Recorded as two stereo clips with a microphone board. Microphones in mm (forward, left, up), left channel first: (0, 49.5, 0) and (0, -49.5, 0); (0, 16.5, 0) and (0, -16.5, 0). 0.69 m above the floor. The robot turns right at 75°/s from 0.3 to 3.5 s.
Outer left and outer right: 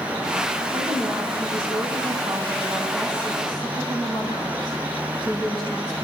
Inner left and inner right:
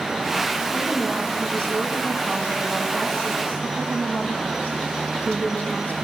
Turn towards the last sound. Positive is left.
turn(degrees=50)